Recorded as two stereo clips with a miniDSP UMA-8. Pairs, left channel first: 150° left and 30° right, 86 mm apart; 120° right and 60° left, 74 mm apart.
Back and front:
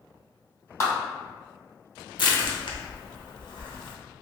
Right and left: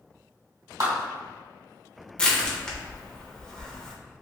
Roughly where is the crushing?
Behind.